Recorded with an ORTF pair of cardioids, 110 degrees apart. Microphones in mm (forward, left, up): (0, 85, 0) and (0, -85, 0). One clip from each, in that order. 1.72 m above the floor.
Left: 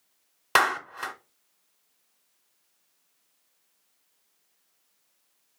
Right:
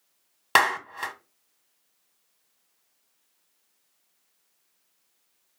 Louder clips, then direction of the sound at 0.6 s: Right 1 dB; 10° right.